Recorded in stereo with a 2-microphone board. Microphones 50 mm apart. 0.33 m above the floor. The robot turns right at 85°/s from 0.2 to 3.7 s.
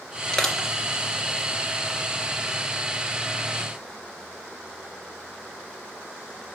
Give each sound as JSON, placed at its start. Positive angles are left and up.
{"t": 0.3, "sound": "crushing", "side_deg": 15, "distance_m": 3.0}